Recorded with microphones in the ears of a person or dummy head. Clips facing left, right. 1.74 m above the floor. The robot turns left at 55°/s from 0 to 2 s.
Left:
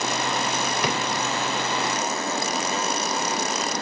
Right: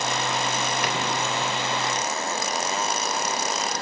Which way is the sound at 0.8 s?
70° left (ahead or behind).